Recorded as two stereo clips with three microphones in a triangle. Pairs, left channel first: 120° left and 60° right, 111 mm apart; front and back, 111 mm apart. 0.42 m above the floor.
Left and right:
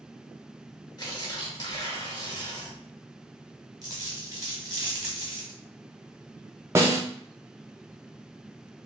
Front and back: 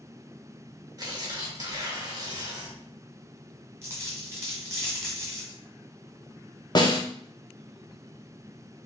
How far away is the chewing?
No chewing in this recording.